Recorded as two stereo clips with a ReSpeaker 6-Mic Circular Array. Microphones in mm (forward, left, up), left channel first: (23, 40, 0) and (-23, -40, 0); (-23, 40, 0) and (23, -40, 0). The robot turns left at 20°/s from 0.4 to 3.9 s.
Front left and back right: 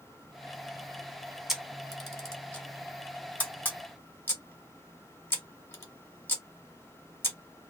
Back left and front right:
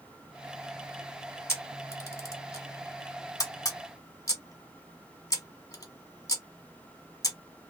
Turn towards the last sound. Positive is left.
turn(degrees=110)